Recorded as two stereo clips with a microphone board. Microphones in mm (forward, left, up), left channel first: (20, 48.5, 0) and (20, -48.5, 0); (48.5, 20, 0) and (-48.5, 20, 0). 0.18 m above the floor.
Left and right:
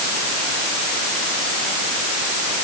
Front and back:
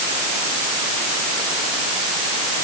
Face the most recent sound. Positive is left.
No sound to turn to.